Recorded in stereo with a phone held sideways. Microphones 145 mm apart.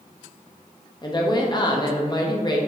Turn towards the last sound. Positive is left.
turn(degrees=30)  # may be behind; listen again after turning